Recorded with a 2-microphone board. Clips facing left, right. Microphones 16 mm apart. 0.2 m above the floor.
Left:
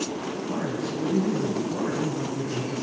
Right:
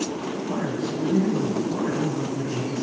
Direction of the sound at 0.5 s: 20° right (ahead or behind).